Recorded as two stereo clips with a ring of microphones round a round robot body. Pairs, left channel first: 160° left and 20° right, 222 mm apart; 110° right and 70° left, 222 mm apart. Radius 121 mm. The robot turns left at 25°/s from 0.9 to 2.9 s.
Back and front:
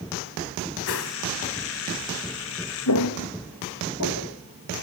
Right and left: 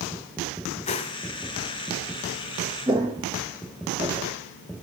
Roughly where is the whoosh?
Behind.